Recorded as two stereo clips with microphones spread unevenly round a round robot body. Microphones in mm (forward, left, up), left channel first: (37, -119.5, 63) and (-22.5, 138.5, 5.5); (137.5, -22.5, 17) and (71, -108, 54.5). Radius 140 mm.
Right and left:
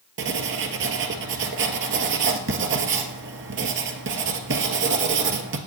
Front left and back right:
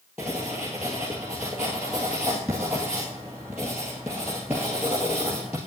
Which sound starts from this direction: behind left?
Writing, at 0.2 s.